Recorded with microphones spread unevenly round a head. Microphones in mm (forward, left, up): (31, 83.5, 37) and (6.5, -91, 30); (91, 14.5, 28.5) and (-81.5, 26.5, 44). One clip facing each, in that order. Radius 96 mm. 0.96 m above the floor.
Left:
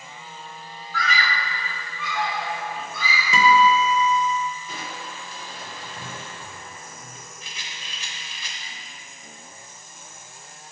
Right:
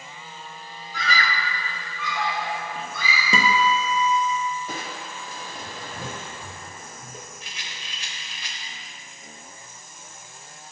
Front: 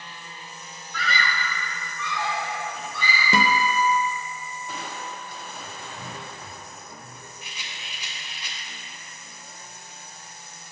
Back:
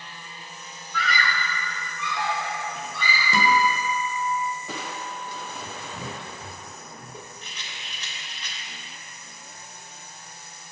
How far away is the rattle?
About 0.8 m.